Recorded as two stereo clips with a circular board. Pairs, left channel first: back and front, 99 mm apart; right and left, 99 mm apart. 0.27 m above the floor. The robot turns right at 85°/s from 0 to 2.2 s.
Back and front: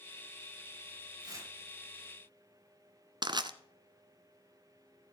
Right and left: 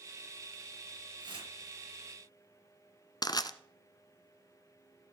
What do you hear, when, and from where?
1.2 s tearing paper: 45° left, 5 m; by 1.5 s 70° left, 5 m
3.2 s crushing: 40° right, 1.1 m